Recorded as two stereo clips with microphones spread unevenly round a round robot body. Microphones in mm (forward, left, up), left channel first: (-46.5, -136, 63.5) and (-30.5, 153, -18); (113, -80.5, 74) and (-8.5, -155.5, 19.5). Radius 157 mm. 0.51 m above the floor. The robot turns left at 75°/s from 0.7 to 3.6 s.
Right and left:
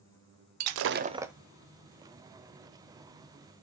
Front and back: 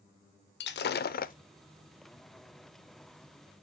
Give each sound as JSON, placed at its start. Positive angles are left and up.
{"t": 0.6, "sound": "breaking glass", "azimuth_deg": 45, "distance_m": 0.5}